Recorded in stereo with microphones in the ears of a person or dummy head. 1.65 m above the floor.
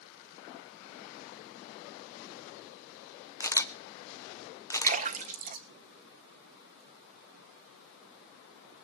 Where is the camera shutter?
20° left (ahead or behind), 1.0 m.